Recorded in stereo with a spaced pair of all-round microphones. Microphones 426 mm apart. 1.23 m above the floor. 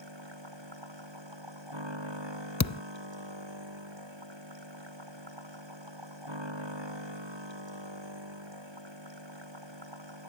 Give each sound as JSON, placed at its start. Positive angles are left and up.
{"t": 0.0, "sound": "a machine running", "side_deg": -85}
{"t": 2.6, "sound": "a thud", "side_deg": 40}